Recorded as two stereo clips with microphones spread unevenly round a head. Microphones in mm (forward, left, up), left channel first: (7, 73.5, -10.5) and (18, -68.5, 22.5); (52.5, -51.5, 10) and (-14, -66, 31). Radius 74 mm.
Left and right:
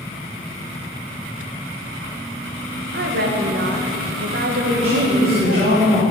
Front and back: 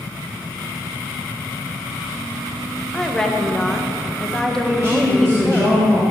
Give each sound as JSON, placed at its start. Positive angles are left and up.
{"t": 2.9, "sound": "a woman speaking", "azimuth_deg": -75, "distance_m": 1.3}
{"t": 4.7, "sound": "a woman speaking", "azimuth_deg": -135, "distance_m": 3.0}